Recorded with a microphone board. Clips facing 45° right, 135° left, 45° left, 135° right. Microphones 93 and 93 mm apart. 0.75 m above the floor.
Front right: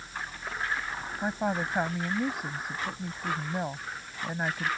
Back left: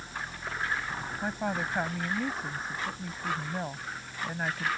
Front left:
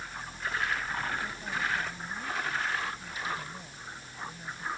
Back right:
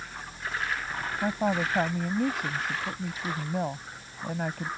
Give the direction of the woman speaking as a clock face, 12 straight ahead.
4 o'clock.